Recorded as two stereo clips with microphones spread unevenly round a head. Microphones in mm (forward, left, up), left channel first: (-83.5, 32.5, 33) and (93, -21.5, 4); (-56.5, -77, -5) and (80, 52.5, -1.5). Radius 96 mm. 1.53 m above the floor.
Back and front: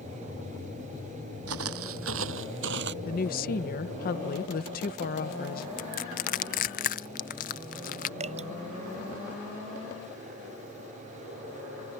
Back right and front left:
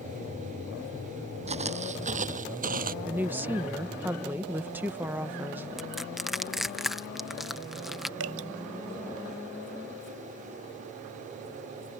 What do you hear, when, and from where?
1.5 s footsteps: 10° right; by 3.0 s 10° left
3.0 s a woman speaking: 125° left
5.8 s crushing: 130° left
8.2 s dripping: 40° left